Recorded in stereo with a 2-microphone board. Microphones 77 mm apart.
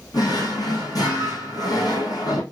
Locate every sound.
0.1 s a drawer: 55° left (ahead or behind), 1.4 m